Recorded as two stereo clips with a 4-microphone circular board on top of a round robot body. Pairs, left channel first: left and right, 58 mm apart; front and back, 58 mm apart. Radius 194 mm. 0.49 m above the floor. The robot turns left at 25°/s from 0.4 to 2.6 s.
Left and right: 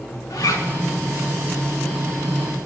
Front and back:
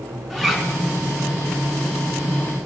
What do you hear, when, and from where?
0.3 s a zipper: 95° left, 5 m; by 0.7 s 85° left, 5 m